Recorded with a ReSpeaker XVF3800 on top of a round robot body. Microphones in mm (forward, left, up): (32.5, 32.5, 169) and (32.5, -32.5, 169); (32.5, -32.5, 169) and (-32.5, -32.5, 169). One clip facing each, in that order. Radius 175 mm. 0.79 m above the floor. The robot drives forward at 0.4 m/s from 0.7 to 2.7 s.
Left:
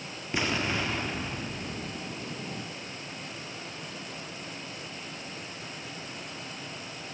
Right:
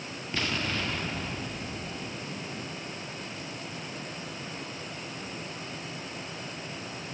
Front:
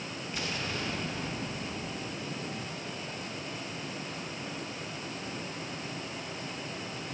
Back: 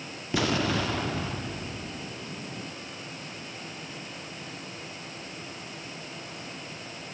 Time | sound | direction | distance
0.3 | an explosion | 170° left | 0.5 m